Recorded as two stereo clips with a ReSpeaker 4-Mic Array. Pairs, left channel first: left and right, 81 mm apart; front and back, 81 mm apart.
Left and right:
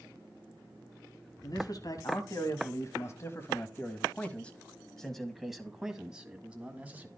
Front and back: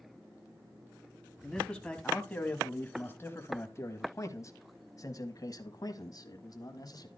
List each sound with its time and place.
1.4 s a man speaking: 80° left, 2 m; by 7.1 s 25° right, 2.5 m